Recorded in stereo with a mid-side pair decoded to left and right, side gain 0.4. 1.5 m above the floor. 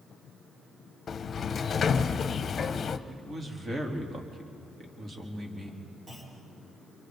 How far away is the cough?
I don't hear a cough.